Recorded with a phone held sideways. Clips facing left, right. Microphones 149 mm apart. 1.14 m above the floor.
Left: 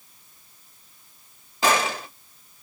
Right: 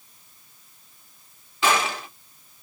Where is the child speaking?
No child speaking in this recording.